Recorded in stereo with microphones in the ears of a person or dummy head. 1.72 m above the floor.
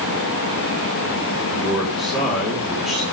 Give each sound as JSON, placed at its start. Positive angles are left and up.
{"t": 1.5, "sound": "a man speaking", "side_deg": 0, "distance_m": 5.5}